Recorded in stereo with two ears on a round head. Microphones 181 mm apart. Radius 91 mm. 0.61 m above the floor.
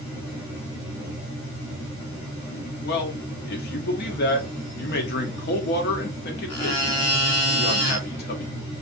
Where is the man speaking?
55° left (ahead or behind), 0.9 m.